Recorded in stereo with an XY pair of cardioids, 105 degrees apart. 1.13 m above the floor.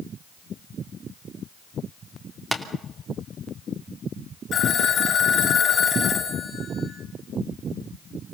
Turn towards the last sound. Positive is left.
turn(degrees=60)